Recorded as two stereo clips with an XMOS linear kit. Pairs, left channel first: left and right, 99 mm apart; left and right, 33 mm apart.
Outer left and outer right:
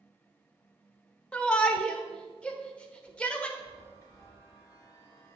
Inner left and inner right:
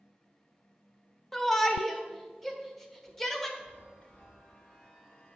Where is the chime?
30° left (ahead or behind), 2 m.